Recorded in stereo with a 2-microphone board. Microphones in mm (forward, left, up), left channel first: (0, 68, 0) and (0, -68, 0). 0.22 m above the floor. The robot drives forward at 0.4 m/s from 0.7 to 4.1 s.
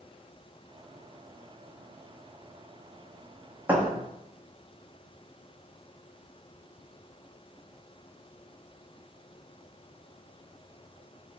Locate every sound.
3.7 s a thud: 15° right (ahead or behind), 1.4 m; by 3.9 s 10° right (ahead or behind), 1.4 m